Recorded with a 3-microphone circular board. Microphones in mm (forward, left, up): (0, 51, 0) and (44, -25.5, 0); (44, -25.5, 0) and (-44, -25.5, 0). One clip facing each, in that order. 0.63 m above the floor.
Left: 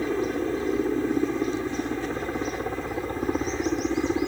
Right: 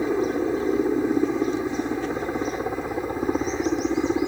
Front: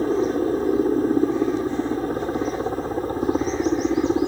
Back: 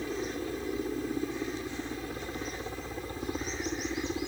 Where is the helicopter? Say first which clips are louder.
Right 3 dB, front 14 dB; 10° left; by 4.3 s 15° left.